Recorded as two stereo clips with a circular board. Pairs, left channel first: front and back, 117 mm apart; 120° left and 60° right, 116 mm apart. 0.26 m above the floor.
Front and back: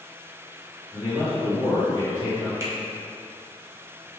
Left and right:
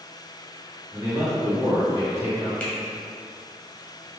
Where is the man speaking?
5° right, 1.8 m.